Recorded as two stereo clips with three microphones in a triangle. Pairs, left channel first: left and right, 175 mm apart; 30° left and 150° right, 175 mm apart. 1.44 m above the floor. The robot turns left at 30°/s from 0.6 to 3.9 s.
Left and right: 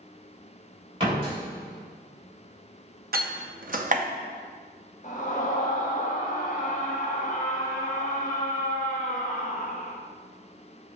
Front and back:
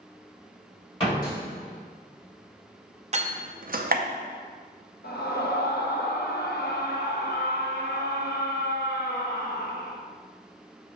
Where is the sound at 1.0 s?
30° right, 3 m; by 1.4 s 40° right, 3 m.